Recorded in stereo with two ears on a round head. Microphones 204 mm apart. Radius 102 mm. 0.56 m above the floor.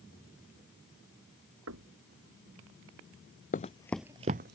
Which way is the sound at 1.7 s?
70° right (ahead or behind).